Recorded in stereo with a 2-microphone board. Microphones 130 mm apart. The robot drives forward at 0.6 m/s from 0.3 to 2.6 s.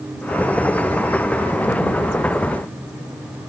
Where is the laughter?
No laughter in this recording.